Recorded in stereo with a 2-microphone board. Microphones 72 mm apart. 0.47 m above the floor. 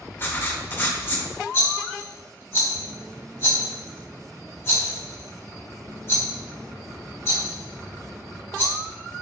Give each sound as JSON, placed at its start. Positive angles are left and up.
{"t": 0.2, "sound": "writing", "side_deg": 30, "distance_m": 0.6}
{"t": 1.5, "sound": "a rattle", "side_deg": 35, "distance_m": 1.2}